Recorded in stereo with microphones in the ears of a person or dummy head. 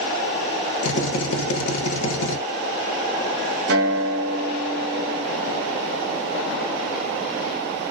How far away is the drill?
About 0.8 m.